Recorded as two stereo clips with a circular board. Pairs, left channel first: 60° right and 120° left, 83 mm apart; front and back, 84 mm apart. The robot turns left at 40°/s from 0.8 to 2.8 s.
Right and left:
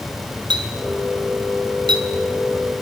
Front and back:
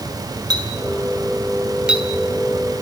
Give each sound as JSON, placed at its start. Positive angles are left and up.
{"t": 0.5, "sound": "a clink", "azimuth_deg": 145, "distance_m": 3.0}